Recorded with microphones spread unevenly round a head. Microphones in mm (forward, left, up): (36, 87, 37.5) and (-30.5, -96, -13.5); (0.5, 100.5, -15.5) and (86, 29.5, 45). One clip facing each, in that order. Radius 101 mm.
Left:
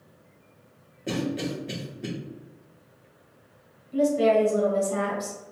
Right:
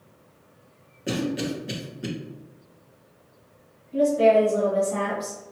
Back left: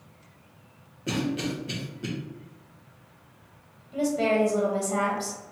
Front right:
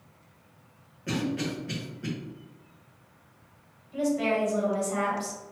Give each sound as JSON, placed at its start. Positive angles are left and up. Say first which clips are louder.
{"t": 1.1, "sound": "a cough", "louder": "right 2 dB, back left 1 dB", "azimuth_deg": 180, "distance_m": 0.7}
{"t": 3.9, "sound": "a woman speaking", "louder": "right 2 dB, back left 2 dB", "azimuth_deg": 105, "distance_m": 1.2}